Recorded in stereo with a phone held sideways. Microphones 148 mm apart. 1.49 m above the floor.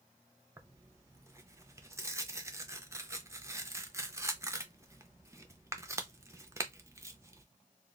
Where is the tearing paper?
20° right (ahead or behind), 0.5 m.